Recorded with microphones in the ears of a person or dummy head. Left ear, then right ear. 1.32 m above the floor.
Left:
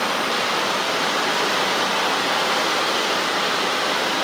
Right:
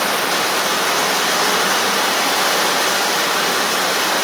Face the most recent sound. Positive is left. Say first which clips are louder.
# right 4 dB
turn(degrees=-60)  # may be behind; listen again after turning